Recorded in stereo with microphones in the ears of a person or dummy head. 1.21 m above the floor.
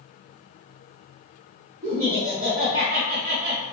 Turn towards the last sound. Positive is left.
turn(degrees=-35)  # may be behind; listen again after turning